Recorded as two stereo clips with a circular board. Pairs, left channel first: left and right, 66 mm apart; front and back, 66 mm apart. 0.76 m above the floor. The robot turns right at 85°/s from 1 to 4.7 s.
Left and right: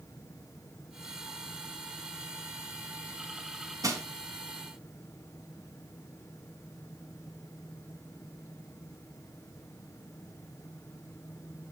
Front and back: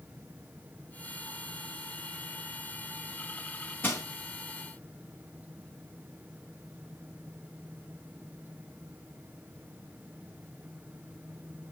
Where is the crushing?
60° right, 2 m; by 4.0 s 45° right, 2 m.